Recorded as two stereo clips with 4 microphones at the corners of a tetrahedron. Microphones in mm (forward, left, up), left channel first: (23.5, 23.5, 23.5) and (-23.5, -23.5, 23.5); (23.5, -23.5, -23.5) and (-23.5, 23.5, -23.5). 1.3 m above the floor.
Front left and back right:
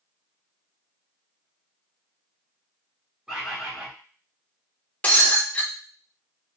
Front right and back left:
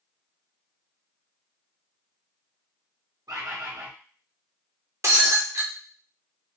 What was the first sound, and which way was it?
A bird, 150° left.